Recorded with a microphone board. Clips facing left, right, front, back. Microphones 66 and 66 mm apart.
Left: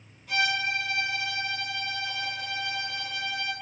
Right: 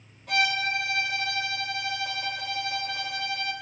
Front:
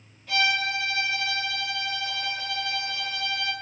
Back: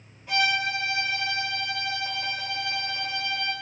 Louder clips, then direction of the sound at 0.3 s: Right 2 dB, even; 110° right.